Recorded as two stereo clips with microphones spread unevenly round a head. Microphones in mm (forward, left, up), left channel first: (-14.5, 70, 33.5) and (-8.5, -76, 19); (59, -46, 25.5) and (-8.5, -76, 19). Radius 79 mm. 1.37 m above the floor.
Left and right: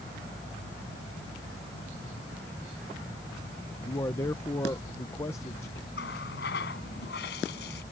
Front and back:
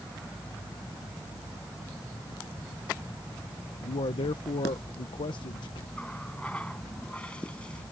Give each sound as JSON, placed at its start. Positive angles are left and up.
{"t": 3.8, "sound": "a man speaking", "azimuth_deg": 20}
{"t": 6.0, "sound": "a running tap", "azimuth_deg": 105}